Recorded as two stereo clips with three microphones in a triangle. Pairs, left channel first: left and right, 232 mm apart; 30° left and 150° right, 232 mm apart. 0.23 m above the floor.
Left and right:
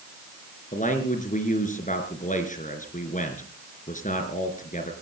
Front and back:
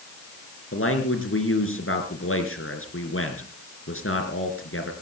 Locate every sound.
0.7 s a man speaking: 40° left, 3.5 m